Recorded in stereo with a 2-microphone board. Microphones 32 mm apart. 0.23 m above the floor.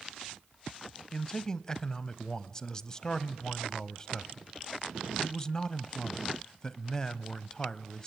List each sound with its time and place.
1.1 s a man speaking: 20° left (ahead or behind), 0.9 m